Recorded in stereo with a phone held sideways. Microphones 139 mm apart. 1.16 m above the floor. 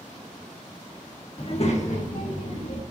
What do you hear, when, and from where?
1.4 s a child speaking: 40° left (ahead or behind), 0.9 m; by 2.8 s 70° left (ahead or behind), 2.5 m